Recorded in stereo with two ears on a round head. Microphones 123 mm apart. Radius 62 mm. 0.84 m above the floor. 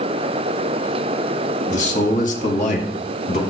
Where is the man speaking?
55° left (ahead or behind), 1.8 m; by 3.4 s 50° left (ahead or behind), 2.5 m.